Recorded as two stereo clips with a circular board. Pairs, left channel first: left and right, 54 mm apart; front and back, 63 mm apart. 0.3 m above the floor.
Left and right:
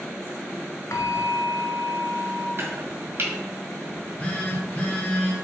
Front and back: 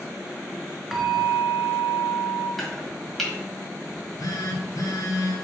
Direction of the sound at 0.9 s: 95° left.